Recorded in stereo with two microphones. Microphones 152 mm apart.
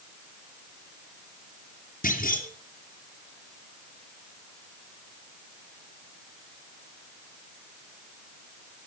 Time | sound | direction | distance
2.0 | a clunk | 60° left (ahead or behind) | 3 m